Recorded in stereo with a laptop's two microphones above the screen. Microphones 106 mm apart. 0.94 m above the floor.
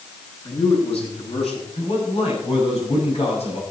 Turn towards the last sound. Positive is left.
turn(degrees=80)